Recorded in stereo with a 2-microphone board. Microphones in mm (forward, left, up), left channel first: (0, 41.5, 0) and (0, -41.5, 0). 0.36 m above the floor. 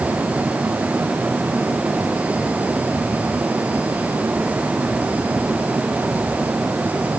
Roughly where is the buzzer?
I don't hear a buzzer.